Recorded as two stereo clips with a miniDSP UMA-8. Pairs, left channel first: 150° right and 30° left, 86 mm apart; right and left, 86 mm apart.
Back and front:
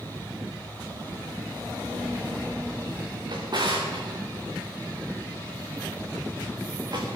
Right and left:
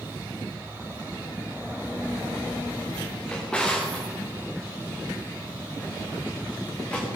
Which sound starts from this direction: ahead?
A drawer, at 3.3 s.